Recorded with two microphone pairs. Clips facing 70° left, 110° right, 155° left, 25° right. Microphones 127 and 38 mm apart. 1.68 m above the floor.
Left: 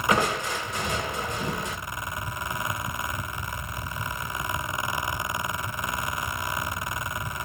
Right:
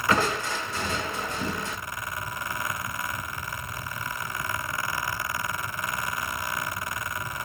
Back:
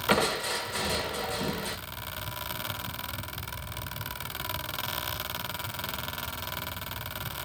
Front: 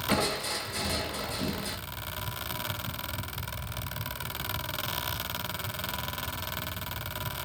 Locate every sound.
0.1 s crushing: 135° left, 2.5 m